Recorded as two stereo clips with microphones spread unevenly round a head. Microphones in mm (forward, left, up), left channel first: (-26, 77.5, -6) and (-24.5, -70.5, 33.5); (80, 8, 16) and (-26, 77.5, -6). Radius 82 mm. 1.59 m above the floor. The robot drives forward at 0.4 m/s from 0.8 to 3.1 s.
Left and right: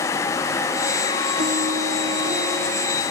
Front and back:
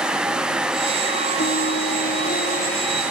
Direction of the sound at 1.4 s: 50° right.